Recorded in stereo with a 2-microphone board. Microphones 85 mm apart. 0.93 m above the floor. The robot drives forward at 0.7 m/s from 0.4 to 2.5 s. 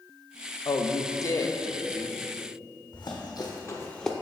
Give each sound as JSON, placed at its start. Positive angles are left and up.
{"t": 0.7, "sound": "a man speaking", "side_deg": 50, "distance_m": 0.6}
{"t": 2.9, "sound": "running footsteps", "side_deg": 65, "distance_m": 2.0}